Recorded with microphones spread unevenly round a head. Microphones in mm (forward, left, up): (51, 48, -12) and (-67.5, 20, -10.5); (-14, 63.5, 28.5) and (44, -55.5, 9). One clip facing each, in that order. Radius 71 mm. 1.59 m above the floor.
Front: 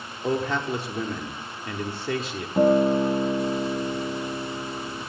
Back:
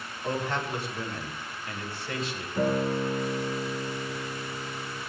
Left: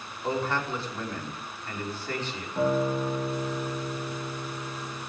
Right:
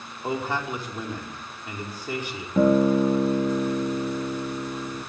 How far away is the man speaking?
About 5.5 m.